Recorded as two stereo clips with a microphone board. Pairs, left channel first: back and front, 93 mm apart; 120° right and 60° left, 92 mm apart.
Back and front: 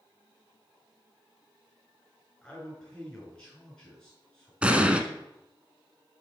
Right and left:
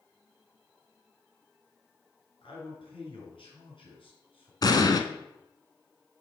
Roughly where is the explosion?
Right.